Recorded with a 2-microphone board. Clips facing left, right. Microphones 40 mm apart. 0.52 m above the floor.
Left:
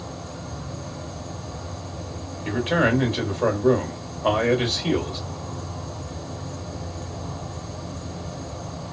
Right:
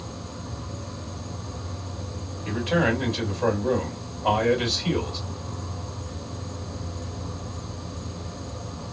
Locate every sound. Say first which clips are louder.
0.0 s an insect: left 2 dB; 55° left (ahead or behind), 1.0 m
2.5 s a man speaking: left 2 dB; 45° left (ahead or behind), 2.0 m